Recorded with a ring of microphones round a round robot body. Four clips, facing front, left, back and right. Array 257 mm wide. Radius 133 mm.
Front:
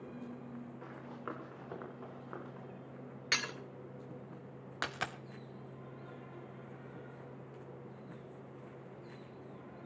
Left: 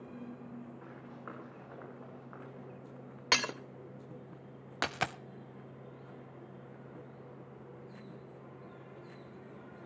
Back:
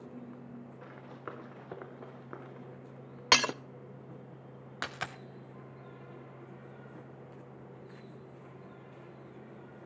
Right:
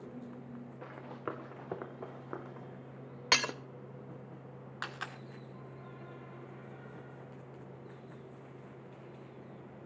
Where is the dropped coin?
90° left, 0.9 m.